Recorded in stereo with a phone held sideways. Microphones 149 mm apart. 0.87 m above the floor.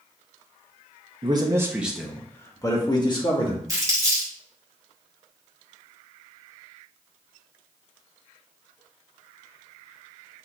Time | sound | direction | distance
1.2 | a man speaking | 35° right (ahead or behind) | 0.8 m
3.7 | crumpling | 25° right (ahead or behind) | 2 m